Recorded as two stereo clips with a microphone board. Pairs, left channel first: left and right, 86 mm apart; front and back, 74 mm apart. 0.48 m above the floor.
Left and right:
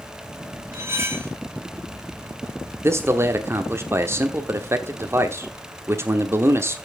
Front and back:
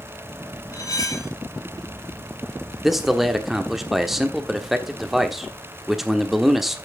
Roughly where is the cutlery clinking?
Ahead right.